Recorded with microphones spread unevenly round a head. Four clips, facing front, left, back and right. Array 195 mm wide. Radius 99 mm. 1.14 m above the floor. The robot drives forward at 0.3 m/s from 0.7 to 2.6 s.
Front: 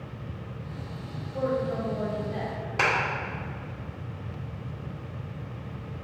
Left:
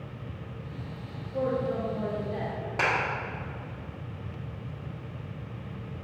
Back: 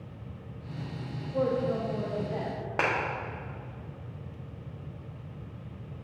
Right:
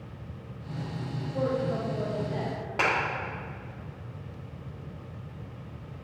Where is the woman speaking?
175° left, 1.5 m.